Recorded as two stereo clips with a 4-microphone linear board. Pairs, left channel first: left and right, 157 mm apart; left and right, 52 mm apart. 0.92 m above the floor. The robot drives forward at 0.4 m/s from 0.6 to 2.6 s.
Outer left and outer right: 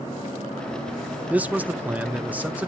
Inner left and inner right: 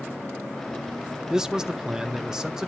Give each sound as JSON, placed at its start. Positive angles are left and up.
{"t": 1.3, "sound": "a man speaking", "side_deg": -10, "distance_m": 0.6}